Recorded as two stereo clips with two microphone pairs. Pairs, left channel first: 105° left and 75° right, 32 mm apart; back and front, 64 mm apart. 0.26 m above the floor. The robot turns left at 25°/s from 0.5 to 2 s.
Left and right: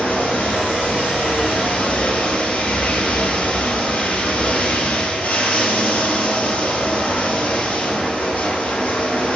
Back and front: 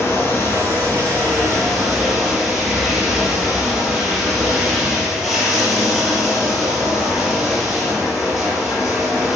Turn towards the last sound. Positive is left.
turn(degrees=85)